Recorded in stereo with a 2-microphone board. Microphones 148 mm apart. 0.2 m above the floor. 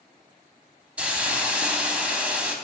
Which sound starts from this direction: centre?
A hiss, at 1.0 s.